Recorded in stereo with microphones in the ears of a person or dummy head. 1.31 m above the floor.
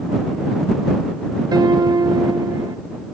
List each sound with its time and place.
1.5 s a piano: 15° right (ahead or behind)